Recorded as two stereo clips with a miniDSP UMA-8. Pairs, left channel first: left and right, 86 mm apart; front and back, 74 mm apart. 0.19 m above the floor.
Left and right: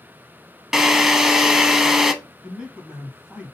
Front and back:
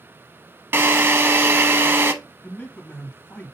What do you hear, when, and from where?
0.7 s a drill: 170° right, 0.6 m
2.4 s a man speaking: 20° right, 1.6 m